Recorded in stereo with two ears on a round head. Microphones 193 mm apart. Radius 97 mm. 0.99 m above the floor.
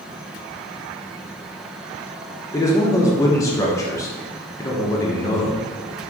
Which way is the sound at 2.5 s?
15° left (ahead or behind).